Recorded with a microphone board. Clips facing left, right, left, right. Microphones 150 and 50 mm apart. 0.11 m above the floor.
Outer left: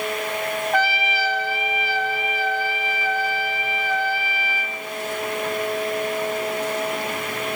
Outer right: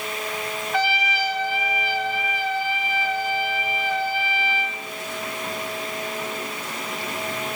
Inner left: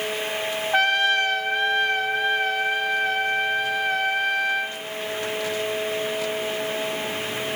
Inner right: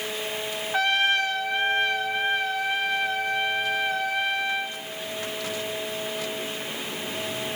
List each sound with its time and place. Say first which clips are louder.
0.7 s a trumpet: outer right 1 dB, inner left 2 dB; 55° left (ahead or behind), 3 m